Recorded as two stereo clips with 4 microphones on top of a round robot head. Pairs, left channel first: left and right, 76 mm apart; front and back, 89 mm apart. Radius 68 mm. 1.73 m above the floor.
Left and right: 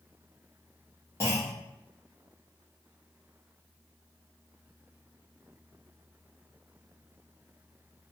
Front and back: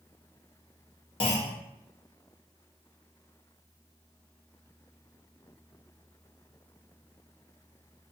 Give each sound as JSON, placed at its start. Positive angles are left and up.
{"t": 1.2, "sound": "a clunk", "azimuth_deg": 25, "distance_m": 0.7}